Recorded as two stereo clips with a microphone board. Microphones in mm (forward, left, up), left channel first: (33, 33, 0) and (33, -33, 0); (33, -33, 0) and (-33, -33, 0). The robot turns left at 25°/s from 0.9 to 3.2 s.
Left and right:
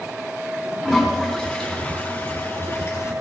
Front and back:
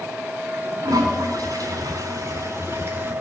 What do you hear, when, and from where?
0.8 s a toilet flushing: 175° right, 3.5 m; by 3.1 s 130° left, 3.5 m